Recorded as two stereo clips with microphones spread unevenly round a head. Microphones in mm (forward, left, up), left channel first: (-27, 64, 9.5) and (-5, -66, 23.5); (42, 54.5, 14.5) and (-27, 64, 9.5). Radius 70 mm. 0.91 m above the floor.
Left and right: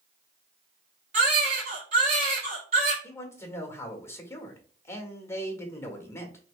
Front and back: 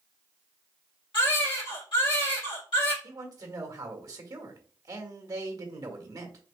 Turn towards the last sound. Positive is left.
turn(degrees=165)